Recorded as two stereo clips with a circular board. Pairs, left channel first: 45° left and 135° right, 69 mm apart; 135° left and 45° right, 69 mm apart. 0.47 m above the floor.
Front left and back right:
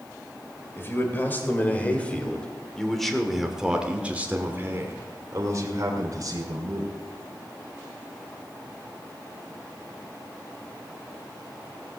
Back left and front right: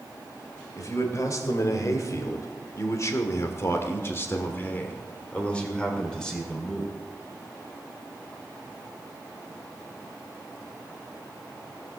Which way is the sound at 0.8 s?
100° left.